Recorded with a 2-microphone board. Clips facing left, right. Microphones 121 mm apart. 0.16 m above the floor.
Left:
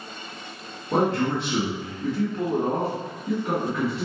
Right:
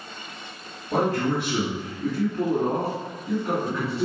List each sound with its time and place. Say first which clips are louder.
0.9 s a man speaking: left 1 dB; 25° left (ahead or behind), 1.6 m; by 4.0 s 20° left (ahead or behind), 2 m